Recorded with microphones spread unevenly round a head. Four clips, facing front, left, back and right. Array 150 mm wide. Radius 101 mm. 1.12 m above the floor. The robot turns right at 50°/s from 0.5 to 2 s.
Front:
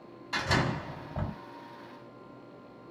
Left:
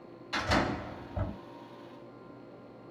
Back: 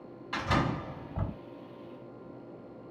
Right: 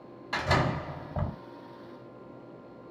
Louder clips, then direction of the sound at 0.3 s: Right 2 dB, even; 85° right.